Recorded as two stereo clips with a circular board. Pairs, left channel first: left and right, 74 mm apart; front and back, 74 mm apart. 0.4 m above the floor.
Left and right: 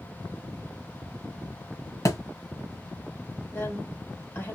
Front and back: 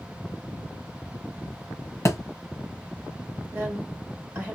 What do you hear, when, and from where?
2.0 s a thud: 50° left, 1.1 m
3.5 s a woman speaking: 125° left, 1.6 m